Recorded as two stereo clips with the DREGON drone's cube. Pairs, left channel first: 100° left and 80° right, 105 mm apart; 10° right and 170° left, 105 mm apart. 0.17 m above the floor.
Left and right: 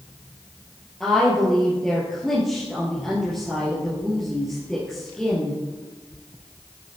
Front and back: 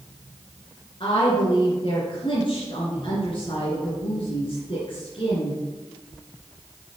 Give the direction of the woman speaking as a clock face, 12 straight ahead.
12 o'clock.